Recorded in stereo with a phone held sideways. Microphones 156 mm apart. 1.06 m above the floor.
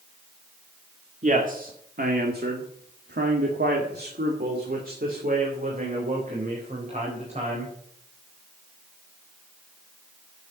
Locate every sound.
1.2 s a man speaking: 50° right (ahead or behind), 2 m; by 7.7 s 45° right (ahead or behind), 4.5 m